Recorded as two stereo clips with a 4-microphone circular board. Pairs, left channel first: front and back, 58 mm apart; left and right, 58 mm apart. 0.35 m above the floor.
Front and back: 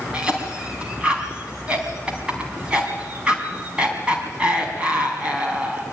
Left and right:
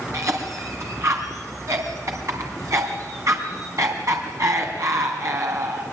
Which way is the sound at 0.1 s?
110° right.